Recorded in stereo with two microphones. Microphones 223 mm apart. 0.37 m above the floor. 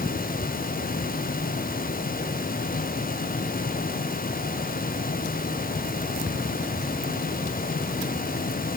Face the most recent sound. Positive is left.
No sound to turn to.